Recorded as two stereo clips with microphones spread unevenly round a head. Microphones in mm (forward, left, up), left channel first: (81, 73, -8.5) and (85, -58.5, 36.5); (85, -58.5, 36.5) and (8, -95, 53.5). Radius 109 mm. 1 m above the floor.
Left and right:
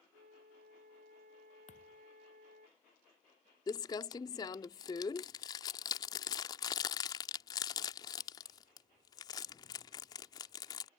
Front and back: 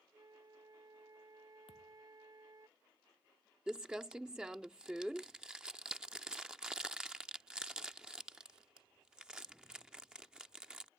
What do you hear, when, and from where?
0.1 s a flute: 115° right
1.7 s a thud: 55° left
3.7 s crumpling: 165° left